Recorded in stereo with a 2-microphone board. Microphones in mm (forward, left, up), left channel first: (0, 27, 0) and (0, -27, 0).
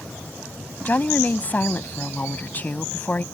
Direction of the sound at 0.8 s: 35° left (ahead or behind).